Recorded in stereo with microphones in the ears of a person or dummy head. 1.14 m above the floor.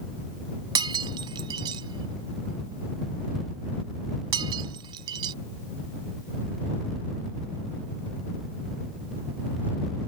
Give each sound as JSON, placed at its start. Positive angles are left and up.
{"t": 0.8, "sound": "breaking glass", "side_deg": -20}